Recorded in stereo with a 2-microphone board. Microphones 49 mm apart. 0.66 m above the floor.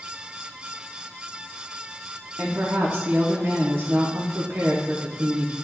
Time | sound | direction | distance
2.4 | a woman speaking | 50° right (ahead or behind) | 1.0 m